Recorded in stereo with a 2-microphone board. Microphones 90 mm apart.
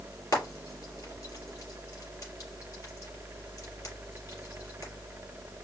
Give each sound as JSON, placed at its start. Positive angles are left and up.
{"t": 0.3, "sound": "frying", "side_deg": 45, "distance_m": 3.0}